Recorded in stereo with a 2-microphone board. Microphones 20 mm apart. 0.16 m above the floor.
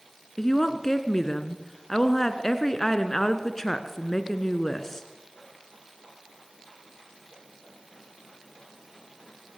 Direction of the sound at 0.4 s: 20° left (ahead or behind).